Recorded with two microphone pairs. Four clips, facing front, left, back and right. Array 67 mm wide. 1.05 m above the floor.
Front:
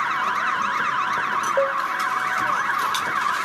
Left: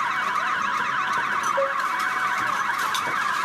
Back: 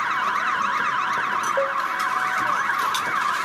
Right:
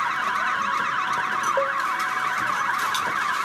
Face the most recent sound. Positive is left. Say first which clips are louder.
# even, front 4 dB
turn(degrees=-45)